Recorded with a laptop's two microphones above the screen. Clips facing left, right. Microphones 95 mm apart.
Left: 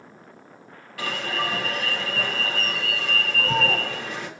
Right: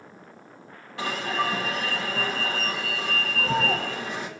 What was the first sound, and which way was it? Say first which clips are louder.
An alarm: right 1 dB; 25° right (ahead or behind).